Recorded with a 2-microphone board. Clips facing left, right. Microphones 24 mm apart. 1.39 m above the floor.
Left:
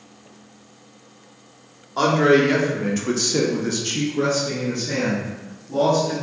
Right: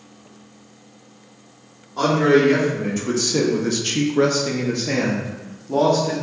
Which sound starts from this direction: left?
A man speaking, at 2.0 s.